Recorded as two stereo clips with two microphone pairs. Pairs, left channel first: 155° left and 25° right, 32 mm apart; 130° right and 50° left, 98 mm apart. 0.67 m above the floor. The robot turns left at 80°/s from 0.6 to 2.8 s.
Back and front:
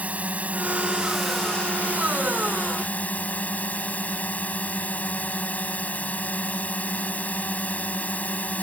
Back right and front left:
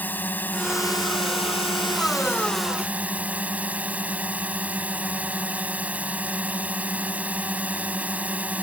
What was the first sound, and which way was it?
A drone, 60° right.